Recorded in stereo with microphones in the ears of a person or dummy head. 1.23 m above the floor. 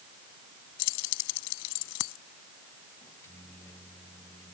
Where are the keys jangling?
75° left (ahead or behind).